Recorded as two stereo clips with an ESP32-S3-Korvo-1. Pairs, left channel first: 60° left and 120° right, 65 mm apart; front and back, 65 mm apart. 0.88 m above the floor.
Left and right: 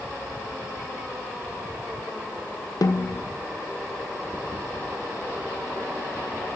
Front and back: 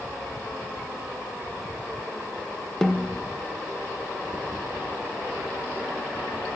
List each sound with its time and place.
2.8 s a snare drum: 80° left, 0.5 m